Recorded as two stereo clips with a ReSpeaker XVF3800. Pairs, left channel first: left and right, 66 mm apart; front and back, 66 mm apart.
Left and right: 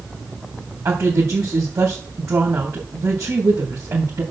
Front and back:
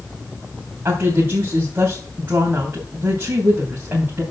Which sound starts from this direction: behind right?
A woman speaking, at 0.8 s.